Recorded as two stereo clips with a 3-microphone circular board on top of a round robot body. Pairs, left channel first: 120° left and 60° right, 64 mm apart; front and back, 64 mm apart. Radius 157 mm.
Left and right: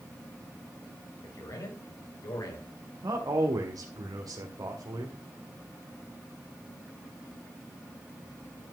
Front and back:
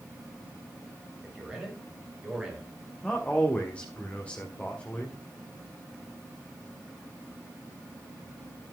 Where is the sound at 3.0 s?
70° right, 1.6 m.